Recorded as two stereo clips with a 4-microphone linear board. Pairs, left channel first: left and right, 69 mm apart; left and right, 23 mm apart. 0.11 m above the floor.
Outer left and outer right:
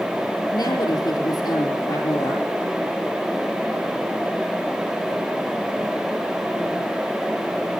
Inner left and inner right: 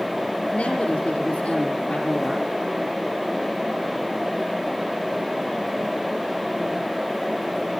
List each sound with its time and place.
0.5 s a woman speaking: 75° left (ahead or behind), 5 m